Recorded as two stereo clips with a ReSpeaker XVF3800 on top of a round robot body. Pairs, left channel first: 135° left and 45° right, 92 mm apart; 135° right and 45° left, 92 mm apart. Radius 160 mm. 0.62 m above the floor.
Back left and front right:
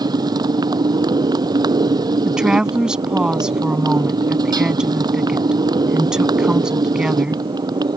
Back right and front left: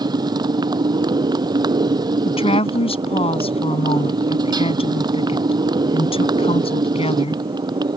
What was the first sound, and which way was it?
A motorcycle, straight ahead.